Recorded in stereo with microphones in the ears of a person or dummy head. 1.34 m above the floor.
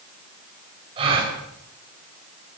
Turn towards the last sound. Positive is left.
turn(degrees=-30)  # may be behind; listen again after turning